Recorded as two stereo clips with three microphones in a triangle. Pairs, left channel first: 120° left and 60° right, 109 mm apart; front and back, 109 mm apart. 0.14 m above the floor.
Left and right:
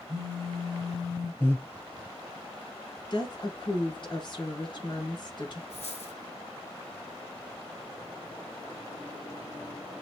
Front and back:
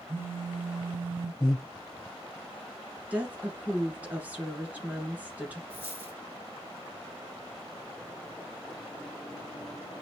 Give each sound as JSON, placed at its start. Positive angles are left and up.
{"t": 0.1, "sound": "a phone buzzing", "azimuth_deg": -110, "distance_m": 1.2}
{"t": 1.4, "sound": "breathing", "azimuth_deg": 45, "distance_m": 1.7}
{"t": 3.1, "sound": "a woman speaking", "azimuth_deg": 110, "distance_m": 1.5}
{"t": 5.7, "sound": "a dropped coin", "azimuth_deg": 105, "distance_m": 3.0}